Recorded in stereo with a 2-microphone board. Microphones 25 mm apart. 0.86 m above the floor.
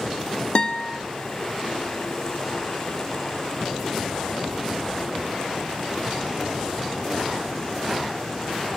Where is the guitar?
45° left (ahead or behind), 1.3 m.